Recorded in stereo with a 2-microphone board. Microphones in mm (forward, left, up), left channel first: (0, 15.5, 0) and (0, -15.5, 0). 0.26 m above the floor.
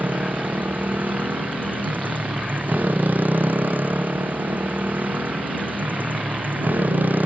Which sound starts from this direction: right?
A motorcycle, at 0.0 s.